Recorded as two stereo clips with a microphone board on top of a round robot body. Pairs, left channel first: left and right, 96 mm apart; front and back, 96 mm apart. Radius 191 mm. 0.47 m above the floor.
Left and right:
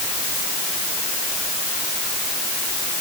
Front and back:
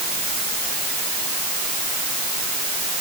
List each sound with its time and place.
Only background noise.